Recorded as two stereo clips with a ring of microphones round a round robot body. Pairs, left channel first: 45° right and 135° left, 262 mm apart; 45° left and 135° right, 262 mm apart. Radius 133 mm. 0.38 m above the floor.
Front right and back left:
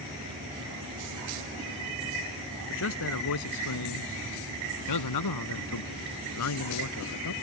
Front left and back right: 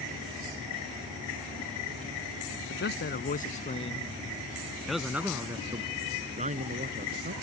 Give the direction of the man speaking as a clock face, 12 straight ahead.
12 o'clock.